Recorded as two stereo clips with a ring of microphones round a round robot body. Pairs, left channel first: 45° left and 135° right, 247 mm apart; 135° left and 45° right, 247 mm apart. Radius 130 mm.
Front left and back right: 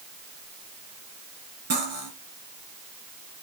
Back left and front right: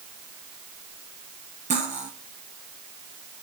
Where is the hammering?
I don't hear hammering.